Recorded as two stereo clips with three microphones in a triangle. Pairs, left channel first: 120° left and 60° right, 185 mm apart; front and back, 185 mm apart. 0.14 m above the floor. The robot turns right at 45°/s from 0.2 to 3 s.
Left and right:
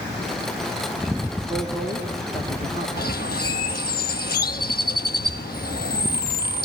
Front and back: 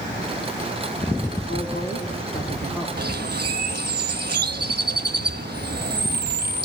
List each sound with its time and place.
1.5 s a woman speaking: 20° left, 4 m; by 2.9 s 80° left, 4 m
3.0 s a bird: 150° left, 0.8 m; by 6.7 s 155° left, 0.8 m